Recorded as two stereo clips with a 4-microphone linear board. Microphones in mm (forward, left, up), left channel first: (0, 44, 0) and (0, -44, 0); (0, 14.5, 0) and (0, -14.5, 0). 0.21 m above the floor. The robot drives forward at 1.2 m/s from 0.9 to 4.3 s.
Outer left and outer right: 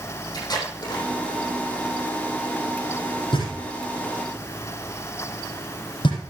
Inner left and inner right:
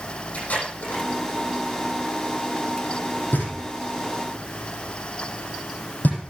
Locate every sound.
0.3 s tape being pulled: 50° left (ahead or behind), 8 m
3.3 s knocking: 80° left, 8 m; by 6.2 s 70° left (ahead or behind), 8 m